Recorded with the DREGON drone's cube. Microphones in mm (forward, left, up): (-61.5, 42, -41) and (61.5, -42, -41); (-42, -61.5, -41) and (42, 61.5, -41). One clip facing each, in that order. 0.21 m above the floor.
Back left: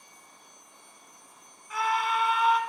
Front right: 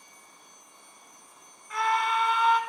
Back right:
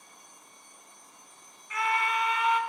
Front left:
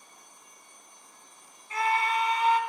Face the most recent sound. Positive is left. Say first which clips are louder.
# front right 1 dB, front left 2 dB
turn(degrees=60)